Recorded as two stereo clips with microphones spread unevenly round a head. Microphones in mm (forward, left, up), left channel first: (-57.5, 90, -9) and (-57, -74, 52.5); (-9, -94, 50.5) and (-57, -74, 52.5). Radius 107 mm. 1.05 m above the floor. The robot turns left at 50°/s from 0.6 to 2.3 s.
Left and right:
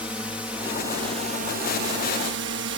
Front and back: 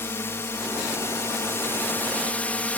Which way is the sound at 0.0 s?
10° left.